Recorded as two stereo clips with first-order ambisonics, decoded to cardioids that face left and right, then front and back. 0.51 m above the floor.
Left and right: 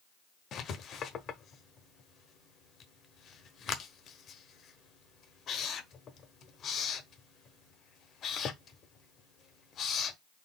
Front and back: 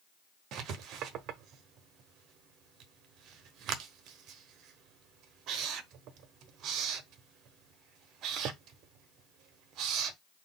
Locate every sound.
0.5 s writing: 145° left, 0.6 m